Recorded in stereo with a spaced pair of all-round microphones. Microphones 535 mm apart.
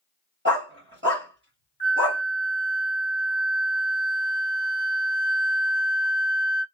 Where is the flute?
45° left (ahead or behind), 1.3 m.